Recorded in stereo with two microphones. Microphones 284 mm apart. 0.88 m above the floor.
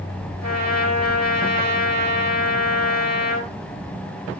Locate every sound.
0.4 s a trumpet: 85° right, 4 m